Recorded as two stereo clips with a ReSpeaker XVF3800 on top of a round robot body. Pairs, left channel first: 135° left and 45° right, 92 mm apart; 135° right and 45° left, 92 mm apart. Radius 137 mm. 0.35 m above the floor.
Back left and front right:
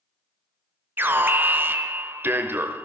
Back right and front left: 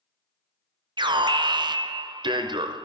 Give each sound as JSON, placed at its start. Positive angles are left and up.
{"t": 1.0, "sound": "an alarm", "azimuth_deg": 20, "distance_m": 1.4}